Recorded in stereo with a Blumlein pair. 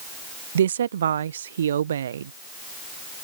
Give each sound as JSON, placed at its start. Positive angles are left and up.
{"t": 0.6, "sound": "a woman speaking", "azimuth_deg": -65}